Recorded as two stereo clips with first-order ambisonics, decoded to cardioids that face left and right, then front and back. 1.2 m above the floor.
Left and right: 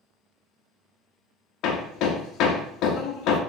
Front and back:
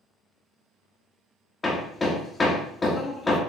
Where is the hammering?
70° left, 0.7 m.